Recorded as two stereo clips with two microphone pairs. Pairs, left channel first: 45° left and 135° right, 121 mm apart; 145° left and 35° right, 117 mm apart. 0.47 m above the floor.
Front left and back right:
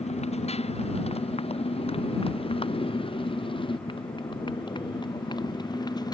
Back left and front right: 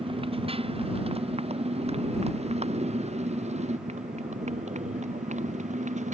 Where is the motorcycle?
10° left; by 6.2 s 15° right.